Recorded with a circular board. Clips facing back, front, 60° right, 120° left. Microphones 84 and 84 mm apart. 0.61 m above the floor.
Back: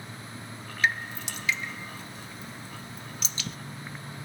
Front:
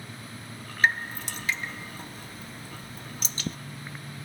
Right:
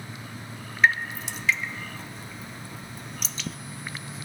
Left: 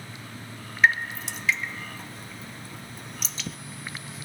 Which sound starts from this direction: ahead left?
Dripping, at 0.8 s.